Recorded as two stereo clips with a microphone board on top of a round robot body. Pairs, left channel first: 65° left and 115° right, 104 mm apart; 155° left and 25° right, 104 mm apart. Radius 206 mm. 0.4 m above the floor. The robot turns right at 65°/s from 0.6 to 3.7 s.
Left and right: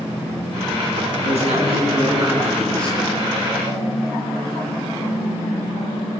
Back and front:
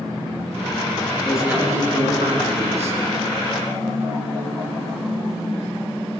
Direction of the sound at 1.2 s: 115° right.